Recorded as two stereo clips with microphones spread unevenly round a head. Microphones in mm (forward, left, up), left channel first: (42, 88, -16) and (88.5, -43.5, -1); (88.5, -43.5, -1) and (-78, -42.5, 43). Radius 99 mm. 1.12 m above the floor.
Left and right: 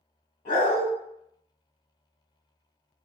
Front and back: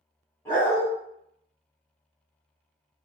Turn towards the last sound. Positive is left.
turn(degrees=80)